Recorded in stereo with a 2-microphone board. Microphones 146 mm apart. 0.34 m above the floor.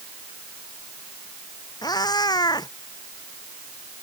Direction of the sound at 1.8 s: 30° left (ahead or behind).